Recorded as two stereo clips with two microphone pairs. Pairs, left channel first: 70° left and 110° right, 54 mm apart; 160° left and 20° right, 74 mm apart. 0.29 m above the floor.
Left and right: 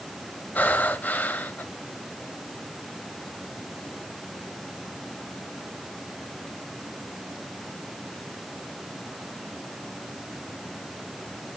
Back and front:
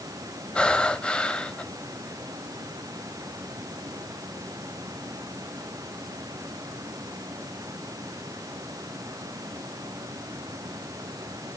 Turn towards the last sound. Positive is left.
turn(degrees=100)